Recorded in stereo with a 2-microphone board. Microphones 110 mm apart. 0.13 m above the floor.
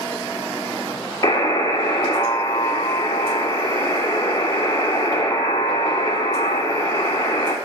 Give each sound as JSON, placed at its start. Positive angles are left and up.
{"t": 1.2, "sound": "a buzzer", "side_deg": 35, "distance_m": 0.6}